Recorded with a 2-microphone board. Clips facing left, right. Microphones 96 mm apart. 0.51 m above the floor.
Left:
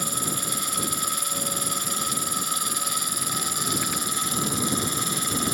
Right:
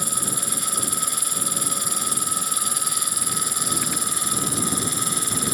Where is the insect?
40° right (ahead or behind).